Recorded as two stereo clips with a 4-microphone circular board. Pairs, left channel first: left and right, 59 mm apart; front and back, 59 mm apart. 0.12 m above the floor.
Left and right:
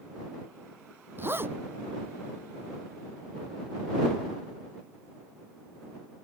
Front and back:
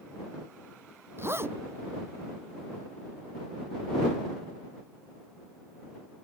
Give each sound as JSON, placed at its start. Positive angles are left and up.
{"t": 1.2, "sound": "a zipper", "azimuth_deg": -135}